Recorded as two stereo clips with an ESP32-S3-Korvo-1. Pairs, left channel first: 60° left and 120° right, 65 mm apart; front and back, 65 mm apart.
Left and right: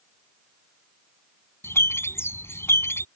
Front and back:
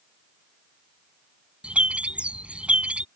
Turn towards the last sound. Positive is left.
turn(degrees=110)